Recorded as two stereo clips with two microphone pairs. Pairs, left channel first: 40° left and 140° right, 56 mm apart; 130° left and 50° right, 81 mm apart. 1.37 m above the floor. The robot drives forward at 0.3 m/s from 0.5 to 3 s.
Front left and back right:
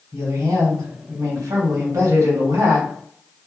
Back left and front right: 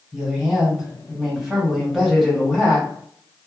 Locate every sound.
0.1 s a woman speaking: 120° right, 1.5 m; by 2.9 s 140° right, 1.9 m